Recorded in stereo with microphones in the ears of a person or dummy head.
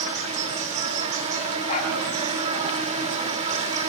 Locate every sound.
0.0 s an insect: 40° right (ahead or behind), 2.5 m
1.7 s a dog barking: 40° left (ahead or behind), 5 m